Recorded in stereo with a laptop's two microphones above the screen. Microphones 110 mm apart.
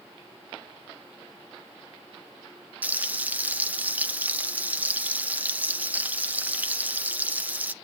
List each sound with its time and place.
2.8 s frying: 15° right (ahead or behind), 0.5 m